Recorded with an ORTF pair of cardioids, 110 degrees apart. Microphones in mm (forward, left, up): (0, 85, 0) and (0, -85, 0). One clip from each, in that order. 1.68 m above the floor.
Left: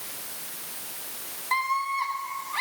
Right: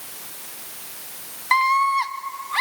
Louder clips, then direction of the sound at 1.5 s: Right 8 dB; 45° right.